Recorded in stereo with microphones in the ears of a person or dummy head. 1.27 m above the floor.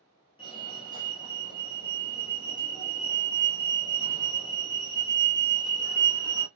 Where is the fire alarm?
25° left (ahead or behind), 1.4 m.